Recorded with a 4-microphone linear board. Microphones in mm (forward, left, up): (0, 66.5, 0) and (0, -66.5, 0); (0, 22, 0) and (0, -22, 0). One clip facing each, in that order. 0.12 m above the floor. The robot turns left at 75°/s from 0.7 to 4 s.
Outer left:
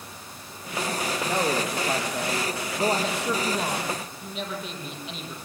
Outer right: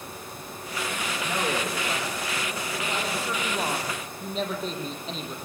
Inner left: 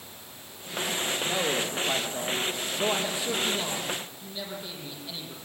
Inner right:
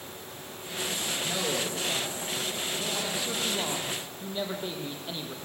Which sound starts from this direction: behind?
A man speaking, at 1.2 s.